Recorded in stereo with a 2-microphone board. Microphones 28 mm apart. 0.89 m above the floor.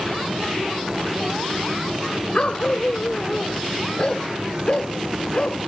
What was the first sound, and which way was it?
A dog barking, 35° left (ahead or behind).